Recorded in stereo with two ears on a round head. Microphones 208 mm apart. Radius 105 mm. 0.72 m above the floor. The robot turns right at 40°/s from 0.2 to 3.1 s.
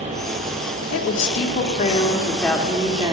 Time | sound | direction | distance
0.9 | a woman speaking | 115° left | 1.5 m